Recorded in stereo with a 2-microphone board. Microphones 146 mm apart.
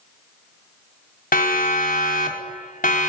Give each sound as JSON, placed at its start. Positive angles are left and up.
{"t": 1.3, "sound": "a siren", "side_deg": 80, "distance_m": 4.5}